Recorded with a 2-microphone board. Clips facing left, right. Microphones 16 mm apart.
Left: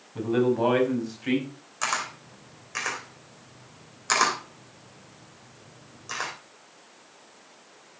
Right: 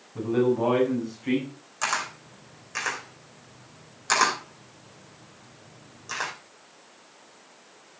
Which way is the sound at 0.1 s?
50° left (ahead or behind).